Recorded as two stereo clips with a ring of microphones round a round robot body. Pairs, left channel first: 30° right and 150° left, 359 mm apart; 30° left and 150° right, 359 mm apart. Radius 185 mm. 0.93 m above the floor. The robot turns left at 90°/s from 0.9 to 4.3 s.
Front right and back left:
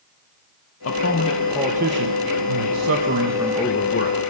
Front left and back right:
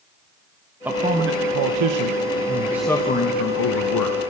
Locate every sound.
0.8 s a man speaking: 65° right, 1.0 m; by 4.2 s 5° right, 1.0 m